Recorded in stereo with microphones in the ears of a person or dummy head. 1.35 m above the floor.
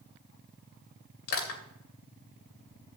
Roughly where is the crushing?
Left.